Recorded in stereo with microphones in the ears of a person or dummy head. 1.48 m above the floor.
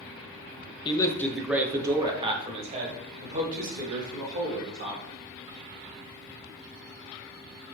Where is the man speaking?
20° left (ahead or behind), 0.7 m; by 5.0 s 55° right (ahead or behind), 2.5 m.